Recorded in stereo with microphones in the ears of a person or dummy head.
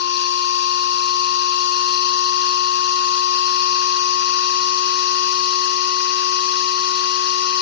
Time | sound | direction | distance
0.0 | a machine running | 60° left (ahead or behind) | ?